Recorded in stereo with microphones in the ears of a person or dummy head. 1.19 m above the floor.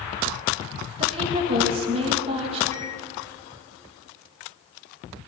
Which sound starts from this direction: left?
A microwave, at 2.7 s.